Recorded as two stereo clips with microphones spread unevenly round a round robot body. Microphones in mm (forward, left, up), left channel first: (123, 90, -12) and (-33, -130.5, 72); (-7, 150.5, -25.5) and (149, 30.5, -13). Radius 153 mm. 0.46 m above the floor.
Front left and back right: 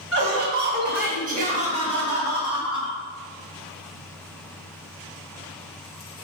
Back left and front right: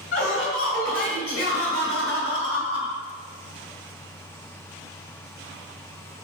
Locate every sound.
0.1 s laughter: 175° right, 2 m; by 3.0 s 135° left, 2 m